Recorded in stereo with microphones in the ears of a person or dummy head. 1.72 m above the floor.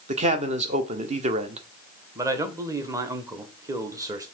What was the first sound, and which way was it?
A man speaking, 35° right (ahead or behind).